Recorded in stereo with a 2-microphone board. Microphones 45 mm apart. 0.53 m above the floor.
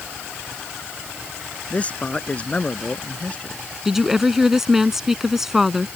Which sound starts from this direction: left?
A man speaking, at 1.7 s.